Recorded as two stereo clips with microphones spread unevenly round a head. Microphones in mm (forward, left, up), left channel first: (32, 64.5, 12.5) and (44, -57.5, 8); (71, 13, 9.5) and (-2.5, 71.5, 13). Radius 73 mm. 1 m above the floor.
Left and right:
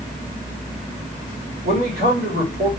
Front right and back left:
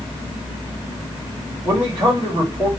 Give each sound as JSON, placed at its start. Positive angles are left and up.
{"t": 1.6, "sound": "a man speaking", "azimuth_deg": -105, "distance_m": 2.0}